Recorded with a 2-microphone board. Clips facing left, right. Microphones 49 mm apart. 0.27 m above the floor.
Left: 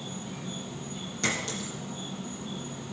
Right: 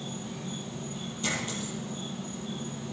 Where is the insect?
15° left (ahead or behind), 4.5 m.